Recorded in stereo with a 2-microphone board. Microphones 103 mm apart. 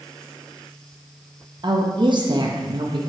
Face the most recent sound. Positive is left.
turn(degrees=-50)  # may be behind; listen again after turning